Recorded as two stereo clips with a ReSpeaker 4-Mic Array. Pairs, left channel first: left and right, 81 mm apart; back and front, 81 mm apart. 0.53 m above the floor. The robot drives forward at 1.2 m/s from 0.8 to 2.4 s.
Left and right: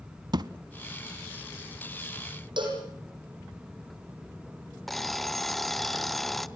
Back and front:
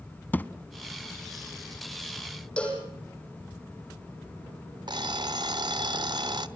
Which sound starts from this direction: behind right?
A thud, at 0.3 s.